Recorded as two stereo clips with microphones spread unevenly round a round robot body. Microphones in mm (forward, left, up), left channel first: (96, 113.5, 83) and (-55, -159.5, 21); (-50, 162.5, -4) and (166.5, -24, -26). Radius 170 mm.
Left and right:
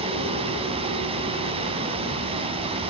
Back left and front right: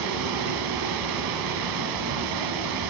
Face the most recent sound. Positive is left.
turn(degrees=-45)